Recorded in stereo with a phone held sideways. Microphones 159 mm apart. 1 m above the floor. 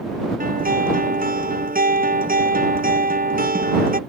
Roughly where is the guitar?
Right.